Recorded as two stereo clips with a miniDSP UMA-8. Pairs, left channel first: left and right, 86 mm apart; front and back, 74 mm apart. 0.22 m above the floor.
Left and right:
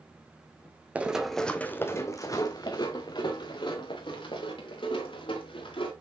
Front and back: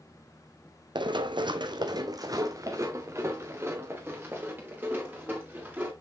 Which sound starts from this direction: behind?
Running footsteps, at 0.9 s.